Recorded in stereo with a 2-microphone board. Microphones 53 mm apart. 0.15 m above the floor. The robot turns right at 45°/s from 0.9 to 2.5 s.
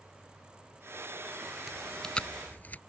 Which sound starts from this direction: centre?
Chewing, at 1.7 s.